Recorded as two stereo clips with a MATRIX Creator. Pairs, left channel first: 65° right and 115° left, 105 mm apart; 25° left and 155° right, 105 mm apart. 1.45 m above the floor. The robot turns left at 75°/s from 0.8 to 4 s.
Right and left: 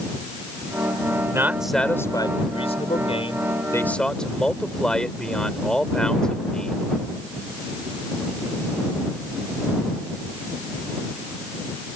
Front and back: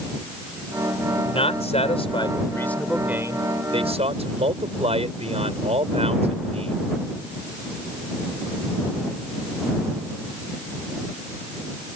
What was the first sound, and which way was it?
A man speaking, 55° left.